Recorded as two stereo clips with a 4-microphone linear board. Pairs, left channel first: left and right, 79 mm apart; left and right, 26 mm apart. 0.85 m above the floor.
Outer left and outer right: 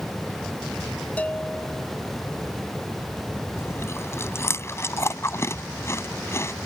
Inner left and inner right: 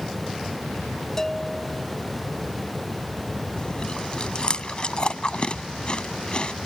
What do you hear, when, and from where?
1.2 s a bell: 20° left (ahead or behind)
3.6 s chewing: 35° left (ahead or behind)